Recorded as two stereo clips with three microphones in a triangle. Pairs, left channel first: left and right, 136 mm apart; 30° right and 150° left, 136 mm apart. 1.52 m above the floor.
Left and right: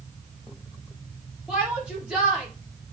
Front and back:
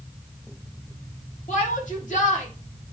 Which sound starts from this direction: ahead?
A shout, at 1.5 s.